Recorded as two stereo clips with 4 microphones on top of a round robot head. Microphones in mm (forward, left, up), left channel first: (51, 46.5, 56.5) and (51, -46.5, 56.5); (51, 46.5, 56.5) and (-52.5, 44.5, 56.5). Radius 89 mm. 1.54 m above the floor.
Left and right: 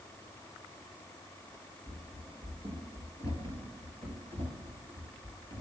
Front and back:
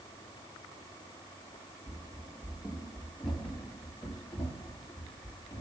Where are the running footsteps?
120° right, 1.8 m; by 5.6 s 65° right, 3.5 m.